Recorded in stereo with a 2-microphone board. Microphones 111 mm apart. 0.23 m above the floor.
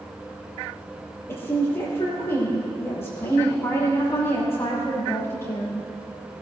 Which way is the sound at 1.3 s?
25° left (ahead or behind).